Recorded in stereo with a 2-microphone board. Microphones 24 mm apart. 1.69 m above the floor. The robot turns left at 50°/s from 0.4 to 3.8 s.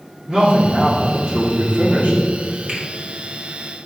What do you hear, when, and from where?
0.3 s a man speaking: 5° left, 1.8 m; by 2.2 s 85° right, 1.8 m
2.7 s a finger snap: 60° right (ahead or behind), 2 m; by 2.8 s 50° right (ahead or behind), 2 m